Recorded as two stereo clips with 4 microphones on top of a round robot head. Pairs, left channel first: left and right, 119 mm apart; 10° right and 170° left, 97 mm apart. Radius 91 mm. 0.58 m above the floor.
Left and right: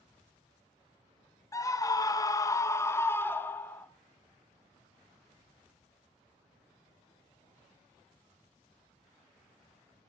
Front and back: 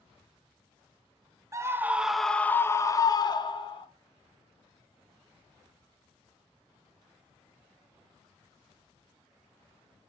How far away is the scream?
About 0.8 m.